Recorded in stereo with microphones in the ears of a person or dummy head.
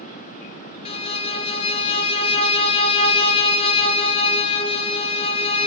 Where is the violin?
35° left (ahead or behind), 0.7 m.